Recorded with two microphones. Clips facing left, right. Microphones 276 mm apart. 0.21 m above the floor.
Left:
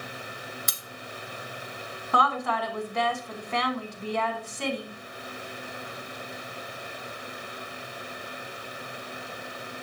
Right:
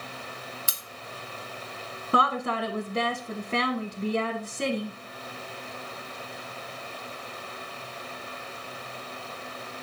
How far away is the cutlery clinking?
About 1.5 m.